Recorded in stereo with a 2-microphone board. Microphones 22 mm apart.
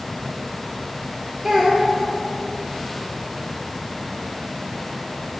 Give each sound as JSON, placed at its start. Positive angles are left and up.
{"t": 1.4, "sound": "a child speaking", "side_deg": -20, "distance_m": 1.0}